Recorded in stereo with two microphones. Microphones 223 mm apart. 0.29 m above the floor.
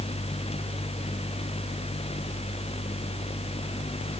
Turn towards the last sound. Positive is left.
No sound to turn to.